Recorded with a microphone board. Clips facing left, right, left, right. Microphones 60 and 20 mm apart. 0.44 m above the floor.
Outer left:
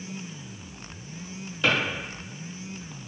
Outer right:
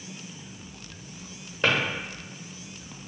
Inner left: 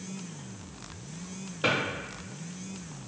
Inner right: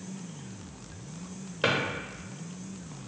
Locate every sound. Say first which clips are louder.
1.6 s a drawer: even, even; 45° right (ahead or behind), 0.9 m